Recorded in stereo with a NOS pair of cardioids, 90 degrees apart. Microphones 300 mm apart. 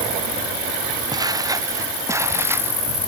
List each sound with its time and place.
1.1 s footsteps: 10° right; by 2.8 s 5° right